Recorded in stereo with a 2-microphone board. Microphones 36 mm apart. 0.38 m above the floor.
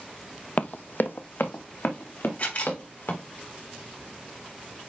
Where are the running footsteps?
45° left (ahead or behind), 0.6 m; by 3.2 s 65° left (ahead or behind), 3.5 m.